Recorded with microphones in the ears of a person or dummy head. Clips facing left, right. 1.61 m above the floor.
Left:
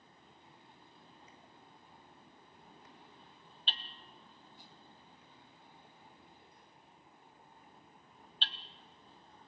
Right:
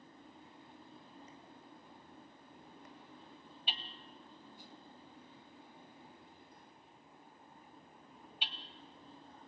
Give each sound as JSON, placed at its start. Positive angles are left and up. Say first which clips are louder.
{"t": 0.0, "sound": "a fan", "louder": "right 6 dB", "side_deg": -50, "distance_m": 2.5}
{"t": 3.7, "sound": "hammering", "louder": "right 1 dB", "side_deg": -10, "distance_m": 0.9}